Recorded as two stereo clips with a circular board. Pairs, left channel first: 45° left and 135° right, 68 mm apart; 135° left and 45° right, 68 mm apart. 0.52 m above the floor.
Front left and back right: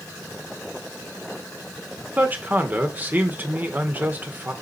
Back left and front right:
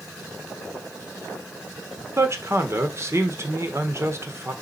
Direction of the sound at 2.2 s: 80° right.